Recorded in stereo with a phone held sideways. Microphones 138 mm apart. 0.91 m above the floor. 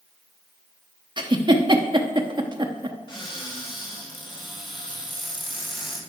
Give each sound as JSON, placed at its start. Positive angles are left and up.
{"t": 1.2, "sound": "a giggle", "side_deg": -35, "distance_m": 0.9}
{"t": 3.1, "sound": "a cupboard door", "side_deg": 35, "distance_m": 3.0}